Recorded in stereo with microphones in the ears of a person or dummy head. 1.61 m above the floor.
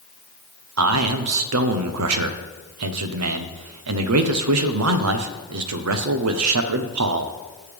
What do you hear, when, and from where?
0.8 s a man speaking: 80° right, 0.9 m